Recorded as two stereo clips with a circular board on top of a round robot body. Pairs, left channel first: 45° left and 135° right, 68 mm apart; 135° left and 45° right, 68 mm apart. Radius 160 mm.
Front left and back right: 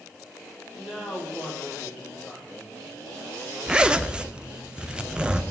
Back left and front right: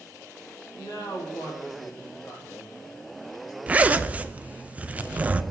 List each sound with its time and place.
0.7 s a woman speaking: 140° left, 2 m
3.7 s a zipper: 80° right, 0.6 m